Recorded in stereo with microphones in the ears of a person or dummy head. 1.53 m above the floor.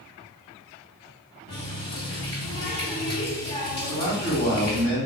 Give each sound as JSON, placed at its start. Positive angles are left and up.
{"t": 1.5, "sound": "a running tap", "side_deg": 25, "distance_m": 1.4}
{"t": 3.8, "sound": "a man speaking", "side_deg": 30, "distance_m": 1.3}